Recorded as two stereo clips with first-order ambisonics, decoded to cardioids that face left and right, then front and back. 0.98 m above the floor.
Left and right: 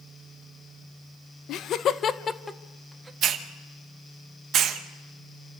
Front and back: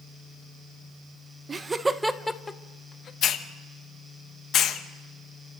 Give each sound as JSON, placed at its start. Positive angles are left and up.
{"t": 1.5, "sound": "laughter", "azimuth_deg": 110, "distance_m": 0.8}
{"t": 3.2, "sound": "a hiss", "azimuth_deg": -45, "distance_m": 1.0}